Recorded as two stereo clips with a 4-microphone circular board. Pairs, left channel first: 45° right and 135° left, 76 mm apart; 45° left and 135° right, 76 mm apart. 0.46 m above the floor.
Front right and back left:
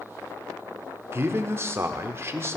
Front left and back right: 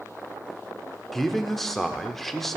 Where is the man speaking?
130° left, 0.9 m.